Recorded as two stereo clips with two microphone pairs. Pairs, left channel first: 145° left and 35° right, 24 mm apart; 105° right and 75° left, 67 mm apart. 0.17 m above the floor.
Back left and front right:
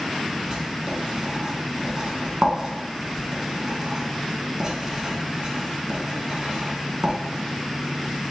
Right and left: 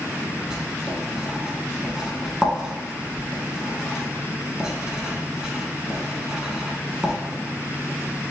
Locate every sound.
0.5 s writing: 5° left, 0.7 m